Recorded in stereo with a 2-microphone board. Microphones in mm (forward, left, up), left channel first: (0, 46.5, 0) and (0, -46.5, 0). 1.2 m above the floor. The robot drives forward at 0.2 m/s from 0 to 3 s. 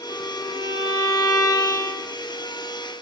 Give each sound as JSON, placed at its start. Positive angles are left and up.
{"t": 0.1, "sound": "a violin", "side_deg": 45, "distance_m": 0.8}